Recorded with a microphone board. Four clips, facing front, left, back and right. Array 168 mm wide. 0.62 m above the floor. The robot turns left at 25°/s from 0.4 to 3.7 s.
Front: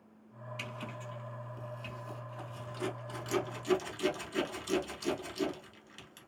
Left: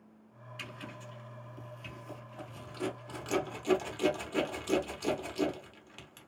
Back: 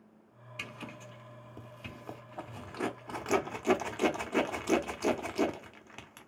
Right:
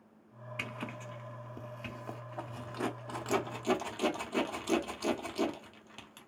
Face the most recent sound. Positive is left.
turn(degrees=-165)